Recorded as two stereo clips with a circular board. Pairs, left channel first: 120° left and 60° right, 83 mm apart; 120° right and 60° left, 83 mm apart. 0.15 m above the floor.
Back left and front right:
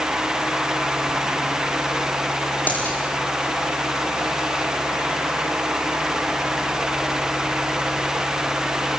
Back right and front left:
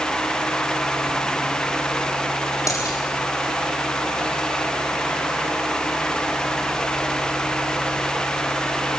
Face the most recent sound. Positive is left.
turn(degrees=-170)